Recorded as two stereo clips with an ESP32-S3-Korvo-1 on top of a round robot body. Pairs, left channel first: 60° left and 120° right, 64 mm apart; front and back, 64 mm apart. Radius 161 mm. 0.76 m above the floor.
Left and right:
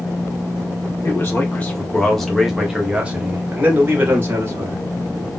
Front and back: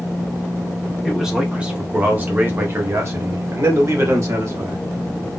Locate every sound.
1.0 s a man speaking: 100° left, 1.3 m; by 4.8 s 160° right, 1.9 m